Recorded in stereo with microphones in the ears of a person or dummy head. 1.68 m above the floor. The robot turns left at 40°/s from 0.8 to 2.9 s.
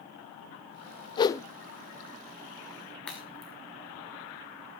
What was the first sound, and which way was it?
A whoosh, 25° left (ahead or behind).